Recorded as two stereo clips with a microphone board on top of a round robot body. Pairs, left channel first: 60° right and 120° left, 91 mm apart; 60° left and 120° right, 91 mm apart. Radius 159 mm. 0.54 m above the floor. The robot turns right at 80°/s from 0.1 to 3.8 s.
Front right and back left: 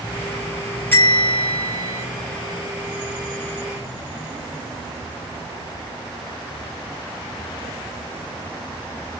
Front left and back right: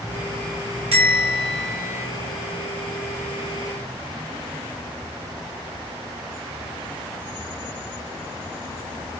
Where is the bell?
130° right, 0.9 m; by 2.0 s 40° right, 0.9 m.